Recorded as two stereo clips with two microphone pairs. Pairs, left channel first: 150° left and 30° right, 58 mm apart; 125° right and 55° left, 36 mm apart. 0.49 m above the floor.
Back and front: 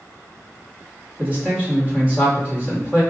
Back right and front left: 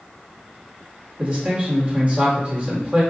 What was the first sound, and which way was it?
A man speaking, 25° left.